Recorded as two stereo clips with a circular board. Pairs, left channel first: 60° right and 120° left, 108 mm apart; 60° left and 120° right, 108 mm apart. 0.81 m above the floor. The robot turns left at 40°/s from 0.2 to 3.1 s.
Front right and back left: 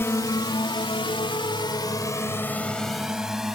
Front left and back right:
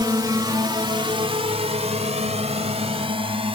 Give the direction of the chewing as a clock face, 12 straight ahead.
I don't hear chewing.